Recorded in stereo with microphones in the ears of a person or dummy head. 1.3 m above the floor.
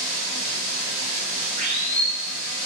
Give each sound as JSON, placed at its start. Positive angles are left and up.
{"t": 0.0, "sound": "running water", "side_deg": -40, "distance_m": 1.0}